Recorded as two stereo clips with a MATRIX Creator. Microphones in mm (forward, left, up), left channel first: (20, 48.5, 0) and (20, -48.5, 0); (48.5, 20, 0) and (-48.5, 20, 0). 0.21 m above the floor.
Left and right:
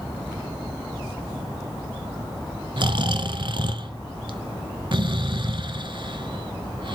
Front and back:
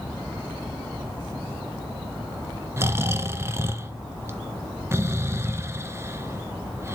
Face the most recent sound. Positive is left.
turn(degrees=-120)